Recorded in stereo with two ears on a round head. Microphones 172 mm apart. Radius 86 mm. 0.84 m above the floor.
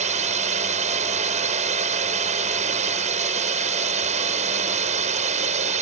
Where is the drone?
35° right (ahead or behind).